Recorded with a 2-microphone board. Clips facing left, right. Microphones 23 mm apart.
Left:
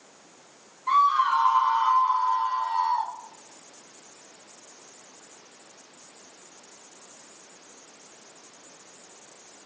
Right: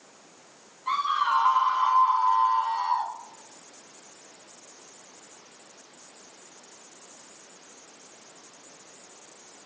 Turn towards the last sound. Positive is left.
turn(degrees=-75)  # may be behind; listen again after turning